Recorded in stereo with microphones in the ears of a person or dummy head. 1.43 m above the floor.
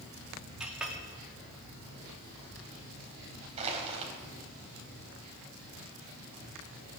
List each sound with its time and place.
0.6 s a clink: 5° right (ahead or behind), 2 m
3.6 s crushing: 30° right (ahead or behind), 3.5 m